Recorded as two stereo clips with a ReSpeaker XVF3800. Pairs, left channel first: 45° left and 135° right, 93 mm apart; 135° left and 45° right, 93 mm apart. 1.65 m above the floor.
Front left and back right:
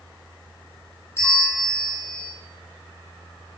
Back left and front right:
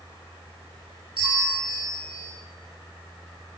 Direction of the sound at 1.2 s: 15° right.